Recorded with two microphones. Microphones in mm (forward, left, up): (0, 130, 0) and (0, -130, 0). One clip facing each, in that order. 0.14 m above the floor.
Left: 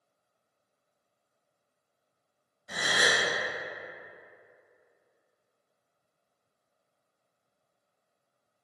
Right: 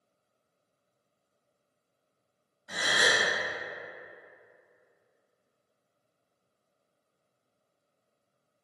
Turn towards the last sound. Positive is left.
turn(degrees=-15)  # may be behind; listen again after turning